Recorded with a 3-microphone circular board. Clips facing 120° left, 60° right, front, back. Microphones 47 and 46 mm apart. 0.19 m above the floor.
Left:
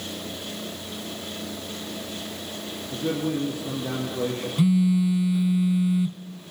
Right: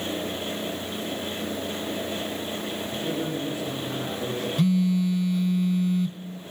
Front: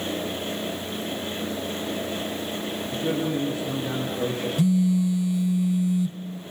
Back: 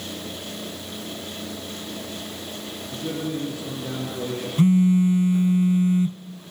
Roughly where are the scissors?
No scissors in this recording.